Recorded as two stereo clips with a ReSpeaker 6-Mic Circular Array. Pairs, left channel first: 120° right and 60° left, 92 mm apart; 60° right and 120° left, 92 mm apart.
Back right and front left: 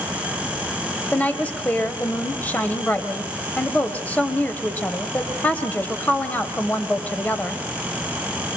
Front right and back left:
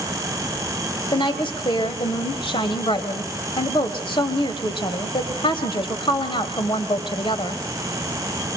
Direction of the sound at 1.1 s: 50° right.